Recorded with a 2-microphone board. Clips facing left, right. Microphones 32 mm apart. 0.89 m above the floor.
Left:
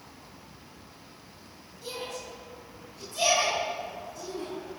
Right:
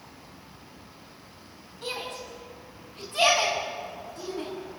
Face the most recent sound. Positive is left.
turn(degrees=-30)  # may be behind; listen again after turning